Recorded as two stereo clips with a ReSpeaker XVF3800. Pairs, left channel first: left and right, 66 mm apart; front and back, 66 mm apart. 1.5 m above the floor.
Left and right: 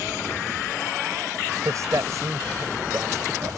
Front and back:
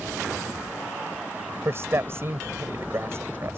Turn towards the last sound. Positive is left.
turn(degrees=-130)